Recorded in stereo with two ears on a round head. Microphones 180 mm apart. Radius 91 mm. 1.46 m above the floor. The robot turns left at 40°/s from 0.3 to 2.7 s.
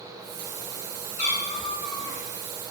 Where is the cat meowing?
55° left, 0.8 m; by 2.2 s 15° left, 0.8 m.